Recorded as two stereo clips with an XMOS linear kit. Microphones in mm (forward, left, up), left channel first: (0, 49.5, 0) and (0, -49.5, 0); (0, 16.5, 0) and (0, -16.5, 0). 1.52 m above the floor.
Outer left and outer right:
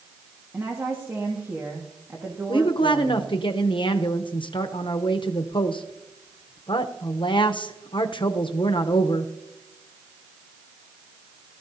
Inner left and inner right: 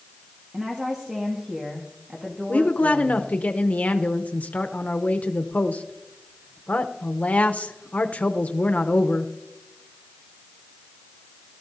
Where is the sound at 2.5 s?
55° left (ahead or behind), 0.8 m.